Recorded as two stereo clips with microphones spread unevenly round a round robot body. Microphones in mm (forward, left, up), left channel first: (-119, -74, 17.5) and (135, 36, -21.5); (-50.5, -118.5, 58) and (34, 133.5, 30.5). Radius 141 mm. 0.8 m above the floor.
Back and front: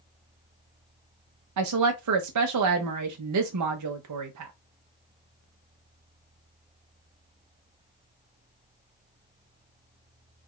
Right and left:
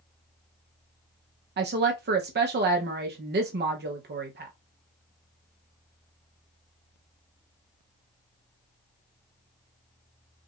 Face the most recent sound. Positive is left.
turn(degrees=25)